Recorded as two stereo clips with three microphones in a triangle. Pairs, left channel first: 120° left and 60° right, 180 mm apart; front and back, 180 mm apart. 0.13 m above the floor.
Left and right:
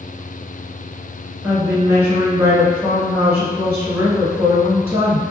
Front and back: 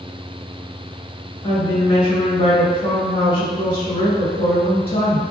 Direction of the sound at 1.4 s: 10° left.